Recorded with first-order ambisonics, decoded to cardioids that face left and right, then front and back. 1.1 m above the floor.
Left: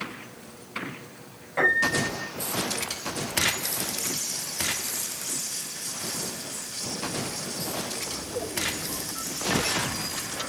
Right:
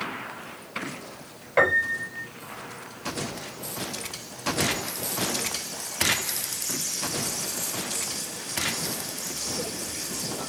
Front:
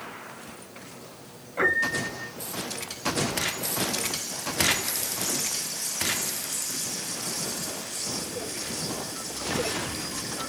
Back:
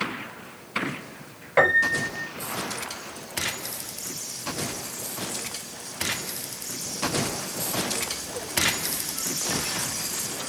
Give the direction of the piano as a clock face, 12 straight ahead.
5 o'clock.